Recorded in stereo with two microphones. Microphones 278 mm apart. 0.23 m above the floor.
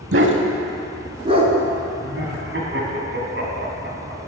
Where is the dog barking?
50° right (ahead or behind), 0.6 m; by 1.5 s 20° right (ahead or behind), 1.1 m.